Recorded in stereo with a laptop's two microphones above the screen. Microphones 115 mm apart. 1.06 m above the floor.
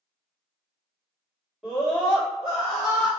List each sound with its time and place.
1.6 s a scream: 5° right (ahead or behind), 1.5 m